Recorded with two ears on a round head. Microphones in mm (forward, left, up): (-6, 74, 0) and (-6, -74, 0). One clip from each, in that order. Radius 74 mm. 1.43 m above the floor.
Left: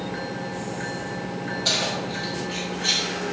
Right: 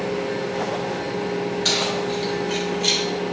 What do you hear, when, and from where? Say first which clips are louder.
1.6 s keys jangling: right 1 dB; 65° right (ahead or behind), 3.5 m; by 3.0 s 80° right, 3 m